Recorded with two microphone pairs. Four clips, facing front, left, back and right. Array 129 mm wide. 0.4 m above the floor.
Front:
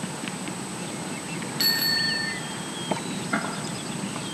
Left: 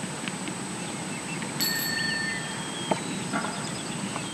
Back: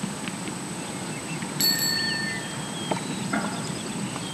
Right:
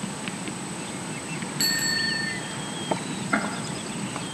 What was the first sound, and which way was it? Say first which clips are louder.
A bicycle bell: right 3 dB, front 2 dB; 20° right.